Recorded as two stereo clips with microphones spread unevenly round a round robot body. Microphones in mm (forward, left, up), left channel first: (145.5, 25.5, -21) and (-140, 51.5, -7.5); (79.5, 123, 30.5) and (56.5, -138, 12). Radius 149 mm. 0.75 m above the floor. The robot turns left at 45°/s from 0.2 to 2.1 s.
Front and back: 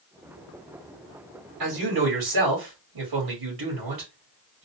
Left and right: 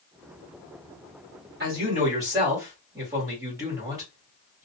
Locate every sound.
1.6 s a man speaking: 150° right, 2 m; by 4.6 s 175° right, 2 m